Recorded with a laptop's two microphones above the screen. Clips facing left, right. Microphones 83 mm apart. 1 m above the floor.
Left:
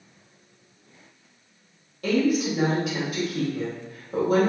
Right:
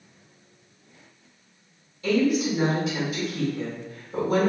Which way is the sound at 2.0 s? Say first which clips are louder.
Even; 60° left (ahead or behind).